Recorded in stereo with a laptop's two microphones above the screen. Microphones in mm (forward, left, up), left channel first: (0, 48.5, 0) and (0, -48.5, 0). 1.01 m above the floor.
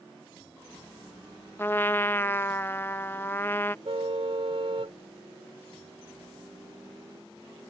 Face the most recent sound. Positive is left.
turn(degrees=-65)  # may be behind; listen again after turning